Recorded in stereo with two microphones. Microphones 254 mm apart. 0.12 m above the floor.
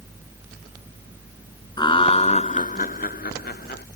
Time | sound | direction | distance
1.8 | laughter | 15° left (ahead or behind) | ?